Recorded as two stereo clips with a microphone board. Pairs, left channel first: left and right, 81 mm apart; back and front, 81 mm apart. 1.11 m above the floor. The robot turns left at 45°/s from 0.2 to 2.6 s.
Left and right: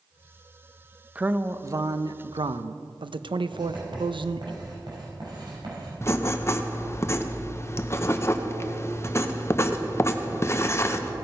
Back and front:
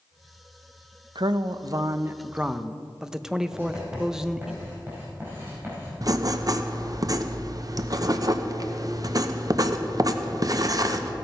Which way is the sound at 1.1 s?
15° right.